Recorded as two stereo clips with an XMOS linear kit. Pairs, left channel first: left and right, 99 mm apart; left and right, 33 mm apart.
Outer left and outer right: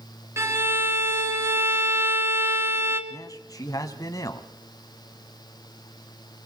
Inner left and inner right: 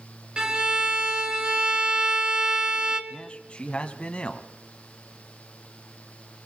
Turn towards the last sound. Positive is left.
turn(degrees=35)  # may be behind; listen again after turning